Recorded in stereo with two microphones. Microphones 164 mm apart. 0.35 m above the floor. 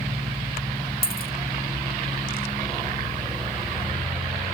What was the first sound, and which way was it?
A dropped coin, 65° left (ahead or behind).